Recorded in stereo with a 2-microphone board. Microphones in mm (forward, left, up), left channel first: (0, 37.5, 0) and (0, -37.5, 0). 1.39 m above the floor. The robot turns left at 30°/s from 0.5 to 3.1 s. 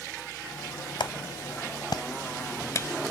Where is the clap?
85° left; by 2.9 s 35° left (ahead or behind).